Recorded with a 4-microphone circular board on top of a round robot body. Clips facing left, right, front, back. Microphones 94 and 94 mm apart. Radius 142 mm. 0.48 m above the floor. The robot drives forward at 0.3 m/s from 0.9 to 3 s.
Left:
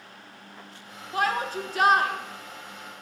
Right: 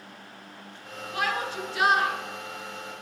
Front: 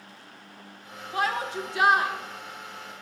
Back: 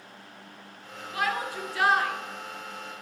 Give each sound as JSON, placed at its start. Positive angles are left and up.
{"t": 1.1, "sound": "a shout", "azimuth_deg": 50, "distance_m": 1.1}